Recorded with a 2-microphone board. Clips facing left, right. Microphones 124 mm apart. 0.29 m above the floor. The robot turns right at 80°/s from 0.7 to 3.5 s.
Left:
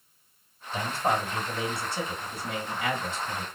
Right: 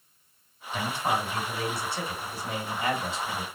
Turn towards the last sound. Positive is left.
turn(degrees=-85)